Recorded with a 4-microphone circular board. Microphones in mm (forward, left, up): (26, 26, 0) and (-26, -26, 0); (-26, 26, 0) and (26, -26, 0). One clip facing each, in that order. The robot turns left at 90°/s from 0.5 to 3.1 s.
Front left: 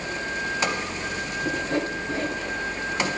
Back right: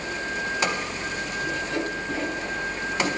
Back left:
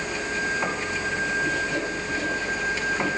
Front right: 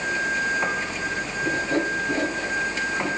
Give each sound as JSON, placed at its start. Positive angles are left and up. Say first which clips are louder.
{"t": 1.4, "sound": "sawing", "louder": "front left 3 dB, front right 2 dB", "azimuth_deg": 25, "distance_m": 8.5}